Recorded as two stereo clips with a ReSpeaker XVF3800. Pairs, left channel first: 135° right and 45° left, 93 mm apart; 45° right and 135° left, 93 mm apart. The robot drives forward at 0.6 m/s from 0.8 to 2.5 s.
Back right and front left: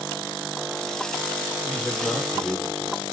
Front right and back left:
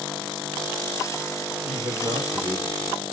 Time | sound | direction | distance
1.6 | a man speaking | 130° left | 3 m